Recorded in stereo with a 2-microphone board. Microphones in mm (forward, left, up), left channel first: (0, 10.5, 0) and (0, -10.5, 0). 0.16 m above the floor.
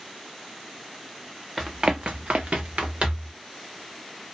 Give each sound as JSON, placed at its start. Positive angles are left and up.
{"t": 1.6, "sound": "running footsteps", "side_deg": -10, "distance_m": 0.7}